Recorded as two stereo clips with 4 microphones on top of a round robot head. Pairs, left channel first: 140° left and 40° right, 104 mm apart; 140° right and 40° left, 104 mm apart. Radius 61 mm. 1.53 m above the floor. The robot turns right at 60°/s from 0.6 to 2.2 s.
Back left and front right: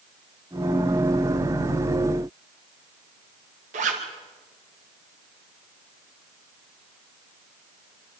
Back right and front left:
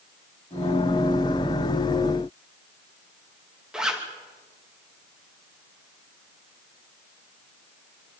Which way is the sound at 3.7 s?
45° right.